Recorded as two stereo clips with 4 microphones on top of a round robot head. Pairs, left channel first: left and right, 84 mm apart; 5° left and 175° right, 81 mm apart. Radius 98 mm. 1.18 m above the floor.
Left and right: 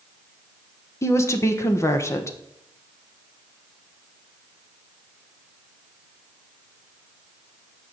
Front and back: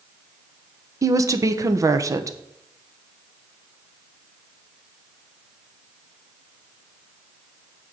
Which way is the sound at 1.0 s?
140° left.